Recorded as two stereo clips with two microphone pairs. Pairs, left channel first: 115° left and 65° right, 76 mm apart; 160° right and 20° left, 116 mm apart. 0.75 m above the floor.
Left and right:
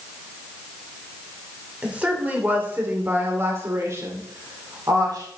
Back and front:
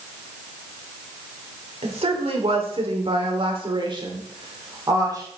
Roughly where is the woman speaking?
Ahead.